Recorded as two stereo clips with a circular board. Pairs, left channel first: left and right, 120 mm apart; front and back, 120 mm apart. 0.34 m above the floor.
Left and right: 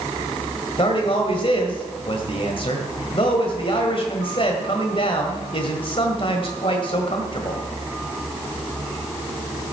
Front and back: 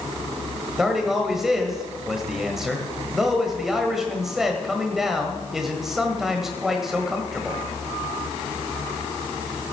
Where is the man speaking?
95° left, 1.5 m.